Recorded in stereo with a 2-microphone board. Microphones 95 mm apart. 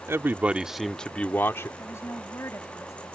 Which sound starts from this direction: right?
A man speaking, at 0.1 s.